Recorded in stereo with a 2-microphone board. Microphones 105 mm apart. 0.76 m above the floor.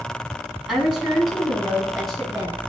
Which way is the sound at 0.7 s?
5° right (ahead or behind).